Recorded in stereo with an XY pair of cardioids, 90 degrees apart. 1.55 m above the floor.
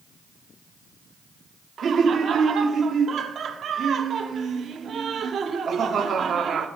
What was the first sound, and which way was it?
Laughter, 60° right.